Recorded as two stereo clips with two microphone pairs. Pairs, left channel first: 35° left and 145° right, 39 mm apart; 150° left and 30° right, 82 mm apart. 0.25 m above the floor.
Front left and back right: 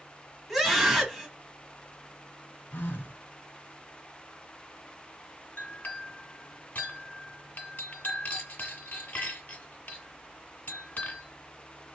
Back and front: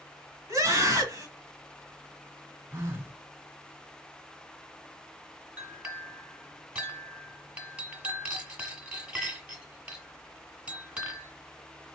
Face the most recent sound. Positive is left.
turn(degrees=40)